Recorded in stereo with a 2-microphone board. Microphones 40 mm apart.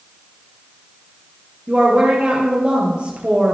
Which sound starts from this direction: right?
A woman speaking, at 1.7 s.